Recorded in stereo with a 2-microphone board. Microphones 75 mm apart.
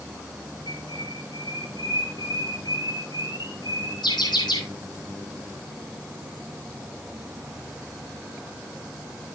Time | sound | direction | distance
0.7 | a bird | 70° left (ahead or behind) | 7 m